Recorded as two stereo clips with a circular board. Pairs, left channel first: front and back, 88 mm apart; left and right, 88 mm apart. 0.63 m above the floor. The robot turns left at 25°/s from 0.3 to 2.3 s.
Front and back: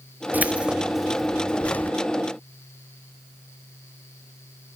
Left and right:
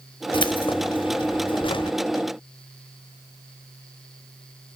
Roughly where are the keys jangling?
Left.